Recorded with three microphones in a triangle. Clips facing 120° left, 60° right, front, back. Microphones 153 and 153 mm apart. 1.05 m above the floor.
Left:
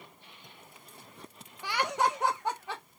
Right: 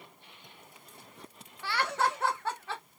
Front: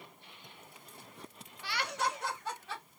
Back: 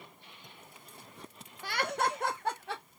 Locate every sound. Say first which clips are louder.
1.6 s laughter: left 1 dB, back 4 dB; 170° right, 0.6 m; by 2.8 s 165° right, 1.1 m